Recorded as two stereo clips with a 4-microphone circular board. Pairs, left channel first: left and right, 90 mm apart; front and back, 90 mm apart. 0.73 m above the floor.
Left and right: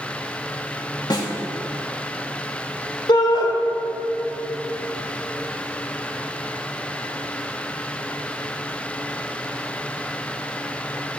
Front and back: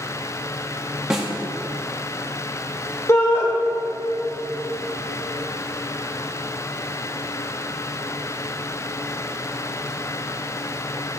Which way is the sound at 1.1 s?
100° left.